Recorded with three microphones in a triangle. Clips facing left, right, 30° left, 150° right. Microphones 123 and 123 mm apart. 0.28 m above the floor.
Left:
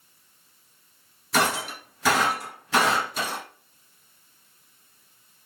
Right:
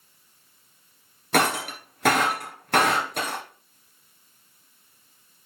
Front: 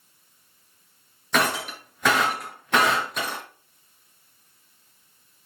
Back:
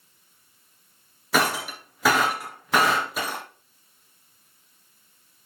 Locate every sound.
1.3 s breaking glass: 65° right, 2.5 m